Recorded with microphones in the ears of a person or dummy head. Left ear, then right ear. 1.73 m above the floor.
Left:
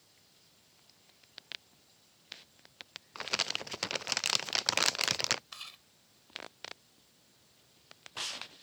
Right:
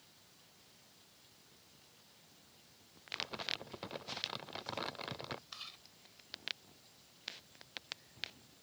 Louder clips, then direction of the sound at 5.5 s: Left 3 dB; 25° left (ahead or behind).